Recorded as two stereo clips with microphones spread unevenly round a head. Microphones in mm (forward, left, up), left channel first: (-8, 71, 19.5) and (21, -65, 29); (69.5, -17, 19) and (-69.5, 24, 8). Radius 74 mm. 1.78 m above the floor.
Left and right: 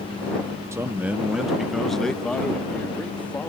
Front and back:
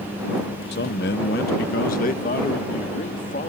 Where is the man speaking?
10° right; by 3.5 s 25° left.